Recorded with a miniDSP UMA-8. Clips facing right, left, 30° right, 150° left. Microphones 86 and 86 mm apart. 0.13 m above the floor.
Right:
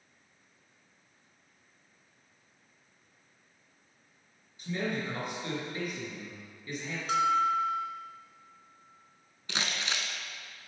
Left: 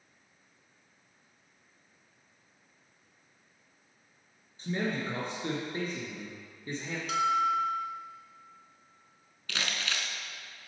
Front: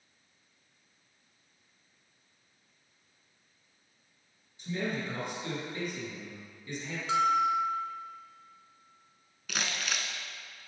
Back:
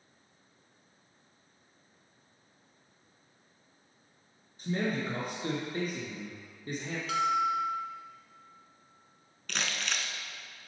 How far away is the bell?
About 0.9 m.